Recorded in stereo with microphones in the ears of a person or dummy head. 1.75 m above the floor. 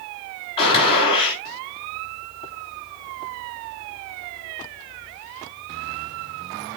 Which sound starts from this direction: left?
A gunshot, at 0.6 s.